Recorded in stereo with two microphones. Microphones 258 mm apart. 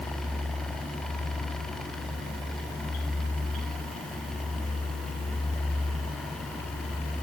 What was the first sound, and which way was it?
Only background noise.